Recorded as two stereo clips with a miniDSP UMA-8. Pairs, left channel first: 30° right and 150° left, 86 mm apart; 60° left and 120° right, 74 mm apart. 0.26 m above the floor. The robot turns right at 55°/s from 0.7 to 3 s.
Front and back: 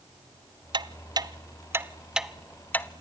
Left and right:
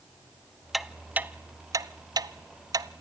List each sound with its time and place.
0.7 s ticking: 150° left, 0.7 m; by 2.9 s 90° right, 0.7 m